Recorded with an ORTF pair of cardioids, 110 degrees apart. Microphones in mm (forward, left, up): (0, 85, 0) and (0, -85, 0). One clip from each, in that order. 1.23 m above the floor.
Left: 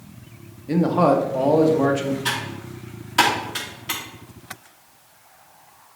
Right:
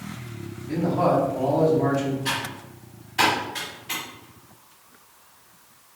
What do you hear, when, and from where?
0.7 s a man speaking: 55° left, 1.1 m
2.2 s typing on a keyboard: 70° left, 2 m